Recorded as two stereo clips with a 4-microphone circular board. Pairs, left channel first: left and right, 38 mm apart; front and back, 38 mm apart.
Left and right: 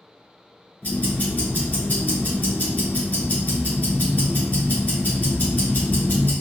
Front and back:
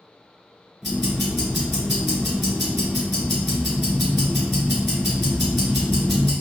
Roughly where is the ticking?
Left.